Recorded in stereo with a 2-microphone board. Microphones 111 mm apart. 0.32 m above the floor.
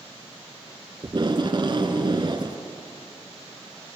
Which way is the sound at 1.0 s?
45° right (ahead or behind).